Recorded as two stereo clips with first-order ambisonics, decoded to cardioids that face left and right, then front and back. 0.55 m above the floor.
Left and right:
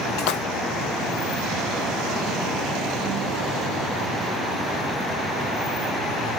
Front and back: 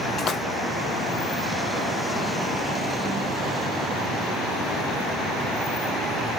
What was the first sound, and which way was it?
A splash, 60° left.